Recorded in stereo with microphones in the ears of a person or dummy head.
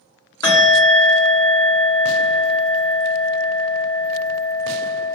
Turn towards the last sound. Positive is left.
turn(degrees=20)  # may be behind; listen again after turning